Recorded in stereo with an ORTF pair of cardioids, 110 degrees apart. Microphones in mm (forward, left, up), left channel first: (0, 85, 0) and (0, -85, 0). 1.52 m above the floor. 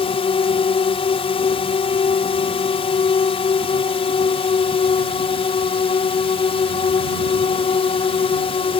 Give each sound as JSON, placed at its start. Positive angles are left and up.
{"t": 0.0, "sound": "a drone", "azimuth_deg": 35}